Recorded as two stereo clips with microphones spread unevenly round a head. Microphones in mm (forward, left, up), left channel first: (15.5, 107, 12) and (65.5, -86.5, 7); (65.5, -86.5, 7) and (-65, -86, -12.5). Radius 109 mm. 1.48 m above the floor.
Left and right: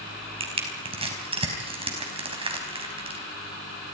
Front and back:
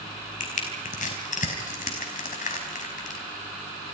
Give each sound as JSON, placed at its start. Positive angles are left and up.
{"t": 0.4, "sound": "crushing", "azimuth_deg": -15, "distance_m": 5.0}